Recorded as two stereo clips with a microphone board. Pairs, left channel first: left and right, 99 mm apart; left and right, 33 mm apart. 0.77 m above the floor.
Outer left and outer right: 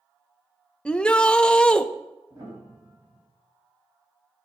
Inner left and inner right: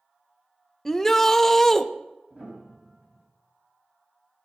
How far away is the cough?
I don't hear a cough.